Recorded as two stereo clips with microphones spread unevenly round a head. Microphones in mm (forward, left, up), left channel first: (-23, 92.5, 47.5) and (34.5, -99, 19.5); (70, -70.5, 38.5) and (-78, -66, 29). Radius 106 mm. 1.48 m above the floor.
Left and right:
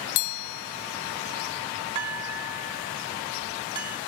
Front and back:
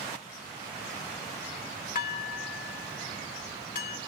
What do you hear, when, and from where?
1.9 s dishes clattering: 5° right, 1.4 m